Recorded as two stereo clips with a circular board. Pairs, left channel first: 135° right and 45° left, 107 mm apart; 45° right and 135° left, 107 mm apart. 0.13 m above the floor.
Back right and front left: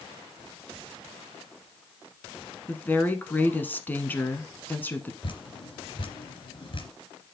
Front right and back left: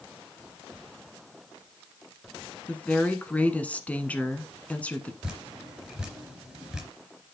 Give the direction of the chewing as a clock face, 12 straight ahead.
I don't hear chewing.